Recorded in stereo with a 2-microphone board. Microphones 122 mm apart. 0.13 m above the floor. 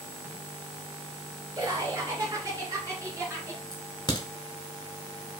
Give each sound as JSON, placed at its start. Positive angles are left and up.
{"t": 1.6, "sound": "laughter", "side_deg": -30, "distance_m": 2.0}
{"t": 3.7, "sound": "a crack", "side_deg": 35, "distance_m": 1.0}